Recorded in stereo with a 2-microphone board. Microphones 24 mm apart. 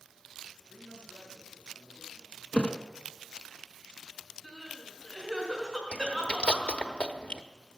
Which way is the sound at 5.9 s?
50° left (ahead or behind).